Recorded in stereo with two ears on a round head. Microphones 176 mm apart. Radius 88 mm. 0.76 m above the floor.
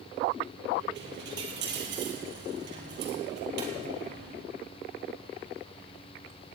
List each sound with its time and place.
0.9 s a dropped coin: 65° right (ahead or behind), 3.5 m